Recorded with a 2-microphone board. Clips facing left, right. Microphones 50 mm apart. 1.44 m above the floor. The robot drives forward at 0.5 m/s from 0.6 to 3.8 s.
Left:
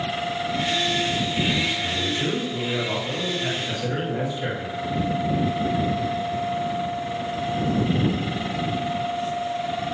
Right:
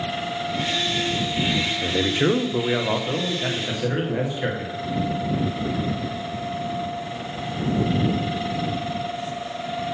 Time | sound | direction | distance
1.8 | a man speaking | 85° right | 0.6 m